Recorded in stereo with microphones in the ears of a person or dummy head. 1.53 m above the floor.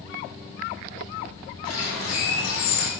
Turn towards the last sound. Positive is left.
turn(degrees=65)  # may be behind; listen again after turning